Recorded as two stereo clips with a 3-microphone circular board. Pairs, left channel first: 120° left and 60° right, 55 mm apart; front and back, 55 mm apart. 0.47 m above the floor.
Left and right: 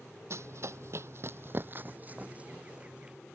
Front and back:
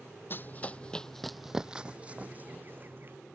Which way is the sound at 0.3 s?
45° right.